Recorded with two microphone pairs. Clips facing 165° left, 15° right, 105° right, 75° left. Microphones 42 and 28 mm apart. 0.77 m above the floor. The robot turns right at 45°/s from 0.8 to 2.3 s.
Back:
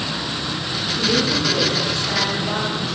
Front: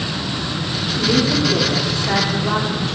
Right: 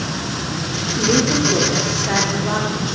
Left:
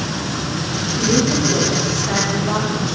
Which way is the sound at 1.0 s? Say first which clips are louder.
Front 3 dB, right 1 dB; 100° right.